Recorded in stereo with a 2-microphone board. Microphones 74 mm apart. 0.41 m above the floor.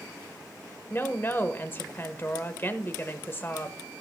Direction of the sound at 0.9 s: 30° left (ahead or behind).